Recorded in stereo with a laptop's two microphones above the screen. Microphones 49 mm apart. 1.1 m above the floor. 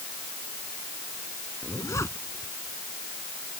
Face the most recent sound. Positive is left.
turn(degrees=65)  # may be behind; listen again after turning